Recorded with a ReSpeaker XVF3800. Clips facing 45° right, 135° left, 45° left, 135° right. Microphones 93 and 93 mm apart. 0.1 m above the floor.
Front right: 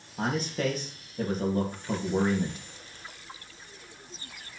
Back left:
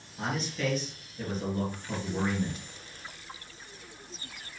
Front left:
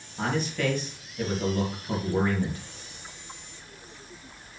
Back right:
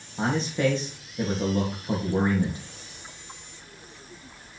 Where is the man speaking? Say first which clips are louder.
Front right 3 dB, back right 3 dB; 75° right, 3 m.